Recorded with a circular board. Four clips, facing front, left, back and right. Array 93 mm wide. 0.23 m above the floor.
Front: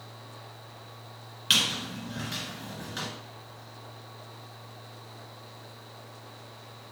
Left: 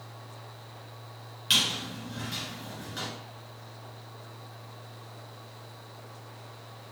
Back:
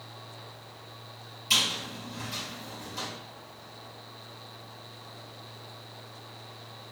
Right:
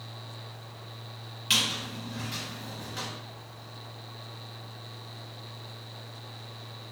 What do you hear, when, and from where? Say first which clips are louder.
1.5 s a squeak: even, front 1 dB; 5° left, 1.9 m